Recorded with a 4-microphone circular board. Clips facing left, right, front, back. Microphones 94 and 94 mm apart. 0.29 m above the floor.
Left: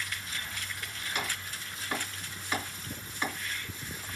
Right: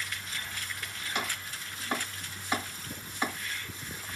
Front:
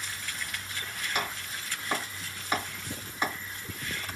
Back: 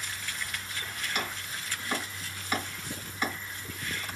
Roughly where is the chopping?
Ahead right.